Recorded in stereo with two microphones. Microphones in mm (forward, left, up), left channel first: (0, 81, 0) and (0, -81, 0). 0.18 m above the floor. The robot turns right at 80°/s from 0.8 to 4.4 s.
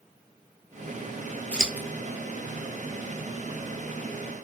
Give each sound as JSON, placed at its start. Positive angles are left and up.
{"t": 1.5, "sound": "scissors", "side_deg": 10, "distance_m": 0.7}